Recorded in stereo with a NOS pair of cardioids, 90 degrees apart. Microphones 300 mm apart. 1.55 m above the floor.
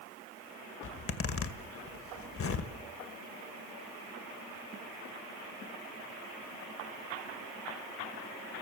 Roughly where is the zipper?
Ahead left.